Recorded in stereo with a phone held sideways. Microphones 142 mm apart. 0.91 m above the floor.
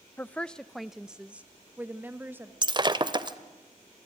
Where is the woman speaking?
15° left (ahead or behind), 0.5 m; by 2.5 s 15° right (ahead or behind), 1.4 m.